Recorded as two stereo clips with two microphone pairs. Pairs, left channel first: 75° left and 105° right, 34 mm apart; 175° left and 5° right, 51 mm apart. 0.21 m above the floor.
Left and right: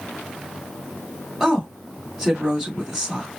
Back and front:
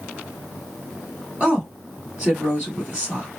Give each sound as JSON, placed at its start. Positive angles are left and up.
{"t": 1.4, "sound": "a woman speaking", "azimuth_deg": -35, "distance_m": 1.9}